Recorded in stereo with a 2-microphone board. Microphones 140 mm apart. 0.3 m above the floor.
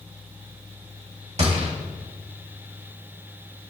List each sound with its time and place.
1.4 s a gunshot: 50° right (ahead or behind), 1.9 m